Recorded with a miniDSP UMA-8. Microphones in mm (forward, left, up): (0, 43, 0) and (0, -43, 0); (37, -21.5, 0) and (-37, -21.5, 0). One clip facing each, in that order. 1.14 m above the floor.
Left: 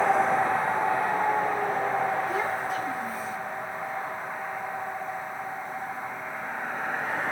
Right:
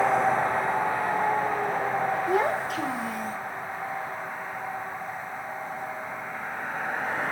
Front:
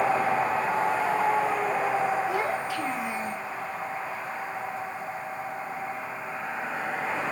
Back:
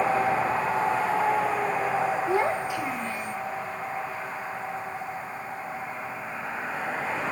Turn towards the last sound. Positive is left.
turn(degrees=-30)